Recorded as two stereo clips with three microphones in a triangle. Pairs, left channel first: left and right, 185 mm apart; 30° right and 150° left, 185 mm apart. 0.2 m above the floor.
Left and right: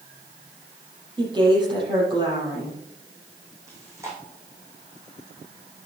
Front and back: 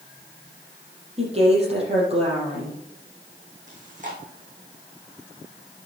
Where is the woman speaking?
155° right, 5.5 m.